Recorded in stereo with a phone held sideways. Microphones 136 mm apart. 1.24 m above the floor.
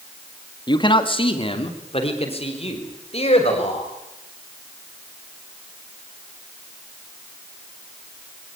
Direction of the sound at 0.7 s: 35° left (ahead or behind).